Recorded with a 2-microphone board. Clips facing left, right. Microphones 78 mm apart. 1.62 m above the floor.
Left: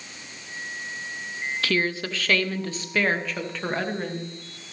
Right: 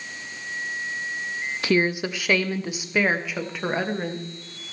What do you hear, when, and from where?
1.6 s a woman speaking: 20° right (ahead or behind), 0.7 m; by 4.2 s 10° right (ahead or behind), 2.5 m